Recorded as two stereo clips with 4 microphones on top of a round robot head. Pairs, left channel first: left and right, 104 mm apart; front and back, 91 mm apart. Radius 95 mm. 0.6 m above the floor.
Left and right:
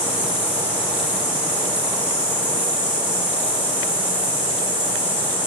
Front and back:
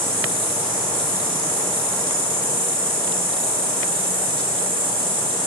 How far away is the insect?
About 3.5 m.